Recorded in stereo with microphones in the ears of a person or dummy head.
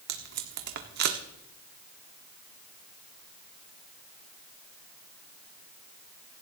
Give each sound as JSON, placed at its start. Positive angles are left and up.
{"t": 0.1, "sound": "tape being pulled", "side_deg": -55, "distance_m": 1.3}